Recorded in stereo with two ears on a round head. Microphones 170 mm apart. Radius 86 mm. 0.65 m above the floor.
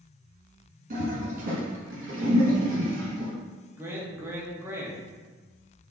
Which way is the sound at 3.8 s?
10° right (ahead or behind).